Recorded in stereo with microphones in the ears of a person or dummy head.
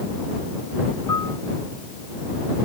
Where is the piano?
20° left (ahead or behind).